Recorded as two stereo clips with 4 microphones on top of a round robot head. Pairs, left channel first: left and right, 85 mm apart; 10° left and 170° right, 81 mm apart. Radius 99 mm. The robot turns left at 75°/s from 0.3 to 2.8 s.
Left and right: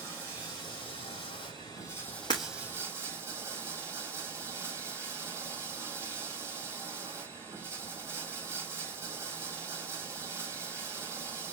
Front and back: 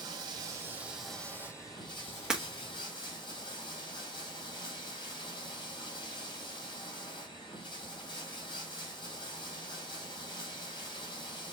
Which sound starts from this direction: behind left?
Breaking glass, at 2.3 s.